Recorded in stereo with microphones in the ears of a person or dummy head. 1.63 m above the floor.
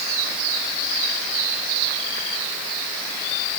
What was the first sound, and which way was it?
Only background noise.